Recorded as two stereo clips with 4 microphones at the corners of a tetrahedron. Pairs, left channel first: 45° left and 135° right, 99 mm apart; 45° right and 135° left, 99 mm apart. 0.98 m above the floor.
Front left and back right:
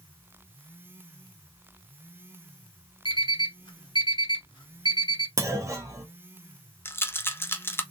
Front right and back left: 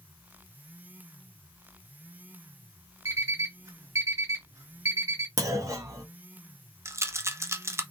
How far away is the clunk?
About 1.2 m.